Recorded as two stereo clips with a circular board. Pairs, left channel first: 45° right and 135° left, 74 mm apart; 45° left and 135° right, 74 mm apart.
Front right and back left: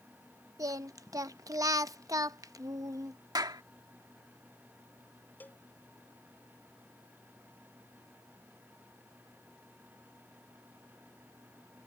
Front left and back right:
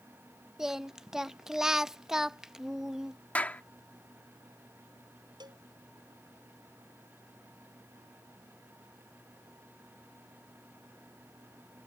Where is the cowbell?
115° right.